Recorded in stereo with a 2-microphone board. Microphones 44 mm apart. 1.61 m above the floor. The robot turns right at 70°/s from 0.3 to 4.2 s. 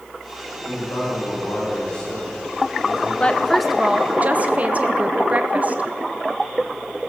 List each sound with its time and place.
0.6 s a man speaking: 70° left, 7 m; by 3.1 s 120° right, 7 m
3.2 s a woman speaking: 150° left, 0.8 m; by 5.8 s 140° right, 0.8 m